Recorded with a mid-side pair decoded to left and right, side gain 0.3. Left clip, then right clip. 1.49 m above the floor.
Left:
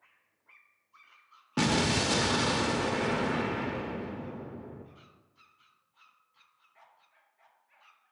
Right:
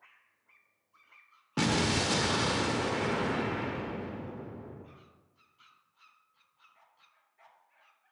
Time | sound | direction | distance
1.6 | an explosion | 15° left | 0.6 m